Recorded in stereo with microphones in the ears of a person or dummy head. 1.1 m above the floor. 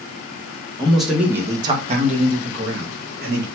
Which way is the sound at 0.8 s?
5° left (ahead or behind).